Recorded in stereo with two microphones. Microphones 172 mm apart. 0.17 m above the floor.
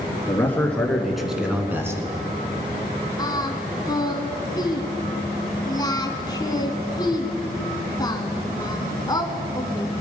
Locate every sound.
0.3 s a man speaking: 15° left (ahead or behind), 2 m; by 2.0 s 15° right (ahead or behind), 1.6 m
3.2 s singing: 25° left (ahead or behind), 1.0 m